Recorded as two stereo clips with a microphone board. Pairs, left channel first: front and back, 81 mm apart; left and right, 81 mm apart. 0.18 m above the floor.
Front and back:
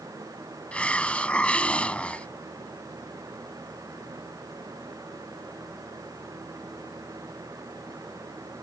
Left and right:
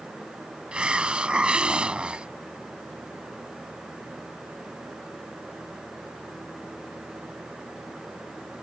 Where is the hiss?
40° right.